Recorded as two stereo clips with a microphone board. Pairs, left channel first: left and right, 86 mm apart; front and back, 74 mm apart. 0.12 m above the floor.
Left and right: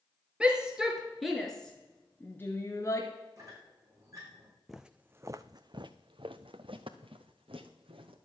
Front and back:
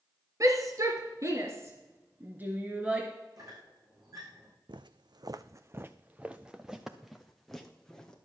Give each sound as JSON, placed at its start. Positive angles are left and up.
{"t": 0.4, "sound": "a shout", "azimuth_deg": -165, "distance_m": 1.8}
{"t": 3.4, "sound": "a squeak", "azimuth_deg": -140, "distance_m": 4.5}
{"t": 4.7, "sound": "footsteps", "azimuth_deg": 180, "distance_m": 0.6}